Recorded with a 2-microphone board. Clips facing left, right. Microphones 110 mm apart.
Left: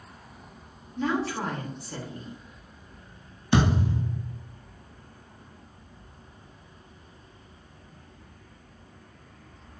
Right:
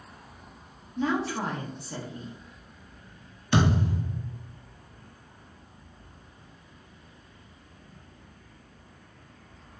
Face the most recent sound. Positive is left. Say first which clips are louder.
# left 1 dB
turn(degrees=15)  # may be behind; listen again after turning